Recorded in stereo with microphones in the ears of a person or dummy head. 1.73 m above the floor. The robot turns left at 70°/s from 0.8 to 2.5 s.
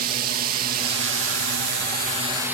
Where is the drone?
45° right; by 2.5 s 165° right.